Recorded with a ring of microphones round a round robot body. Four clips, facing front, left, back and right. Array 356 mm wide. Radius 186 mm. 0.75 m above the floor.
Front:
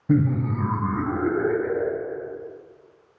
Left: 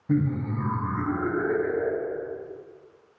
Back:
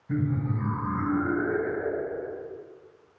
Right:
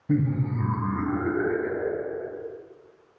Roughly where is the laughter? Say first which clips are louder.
Even, front 7 dB; ahead.